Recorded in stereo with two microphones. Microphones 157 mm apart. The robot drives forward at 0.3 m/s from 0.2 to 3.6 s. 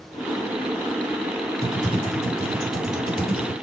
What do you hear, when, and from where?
1.6 s typing on a keyboard: 5° left (ahead or behind), 2 m